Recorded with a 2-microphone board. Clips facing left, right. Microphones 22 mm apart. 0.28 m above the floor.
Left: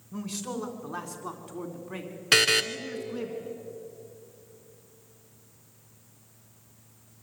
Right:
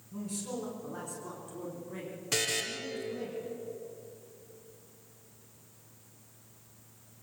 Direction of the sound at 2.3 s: 80° left.